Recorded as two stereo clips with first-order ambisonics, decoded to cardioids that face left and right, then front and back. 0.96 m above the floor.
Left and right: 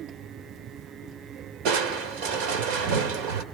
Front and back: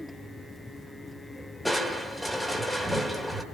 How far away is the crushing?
About 1.8 m.